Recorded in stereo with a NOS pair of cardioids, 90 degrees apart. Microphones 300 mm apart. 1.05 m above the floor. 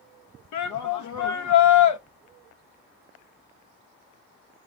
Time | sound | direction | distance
0.5 | a shout | 65° left | 0.9 m